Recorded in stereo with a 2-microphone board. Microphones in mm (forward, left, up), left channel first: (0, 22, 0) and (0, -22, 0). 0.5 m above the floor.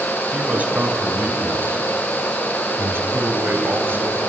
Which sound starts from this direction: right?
A man speaking, at 0.3 s.